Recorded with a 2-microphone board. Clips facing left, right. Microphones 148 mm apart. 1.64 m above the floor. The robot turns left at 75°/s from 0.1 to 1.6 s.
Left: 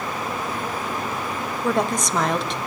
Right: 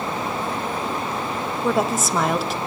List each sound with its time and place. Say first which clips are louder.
1.6 s a woman speaking: right 1 dB; 5° right (ahead or behind), 0.8 m